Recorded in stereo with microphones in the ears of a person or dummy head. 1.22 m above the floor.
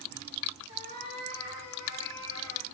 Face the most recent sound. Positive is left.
turn(degrees=-70)  # may be behind; listen again after turning